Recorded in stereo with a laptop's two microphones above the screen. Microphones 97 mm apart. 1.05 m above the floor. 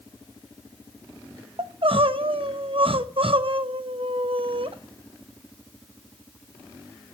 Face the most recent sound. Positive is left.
turn(degrees=-70)  # may be behind; listen again after turning